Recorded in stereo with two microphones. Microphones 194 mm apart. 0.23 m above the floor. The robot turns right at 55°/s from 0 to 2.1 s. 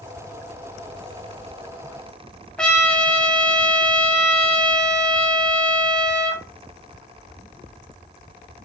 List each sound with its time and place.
2.6 s a trumpet: 5° left (ahead or behind), 0.7 m